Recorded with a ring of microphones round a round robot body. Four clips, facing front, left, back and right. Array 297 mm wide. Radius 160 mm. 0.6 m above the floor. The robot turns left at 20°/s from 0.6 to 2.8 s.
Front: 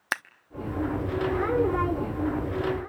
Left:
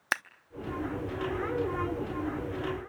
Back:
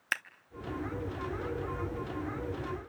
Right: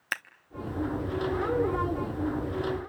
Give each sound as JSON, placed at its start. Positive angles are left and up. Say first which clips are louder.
{"t": 0.1, "sound": "scissors", "louder": "left 3 dB, front 5 dB", "azimuth_deg": 30, "distance_m": 0.7}